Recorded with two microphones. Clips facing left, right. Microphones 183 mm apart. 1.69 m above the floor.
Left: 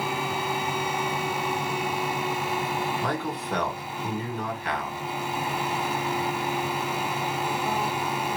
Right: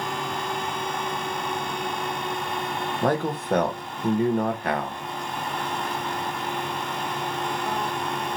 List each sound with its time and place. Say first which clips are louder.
3.0 s a man speaking: right 5 dB; 45° right (ahead or behind), 0.9 m